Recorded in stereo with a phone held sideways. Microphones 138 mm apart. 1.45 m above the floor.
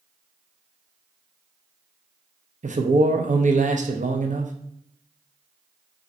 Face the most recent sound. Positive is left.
turn(degrees=-60)  # may be behind; listen again after turning